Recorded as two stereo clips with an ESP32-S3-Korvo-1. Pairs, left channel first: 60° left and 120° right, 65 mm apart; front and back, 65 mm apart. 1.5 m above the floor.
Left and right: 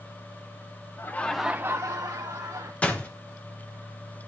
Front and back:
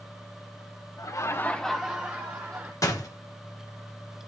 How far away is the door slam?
About 0.9 m.